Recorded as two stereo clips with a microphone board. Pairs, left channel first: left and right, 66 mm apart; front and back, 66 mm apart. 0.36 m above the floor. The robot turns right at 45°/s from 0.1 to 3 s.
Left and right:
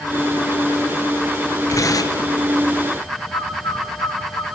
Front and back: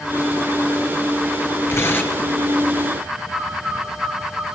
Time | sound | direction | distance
1.7 | tearing paper | 45° left | 3 m
3.3 | a bird | 85° left | 2.5 m